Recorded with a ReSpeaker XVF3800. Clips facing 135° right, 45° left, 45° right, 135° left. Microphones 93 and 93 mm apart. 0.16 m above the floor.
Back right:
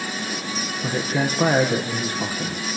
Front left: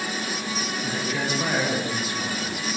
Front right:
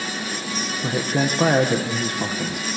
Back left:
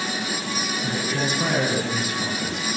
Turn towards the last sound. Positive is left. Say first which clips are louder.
# back right 6 dB, front right 5 dB
turn(degrees=-85)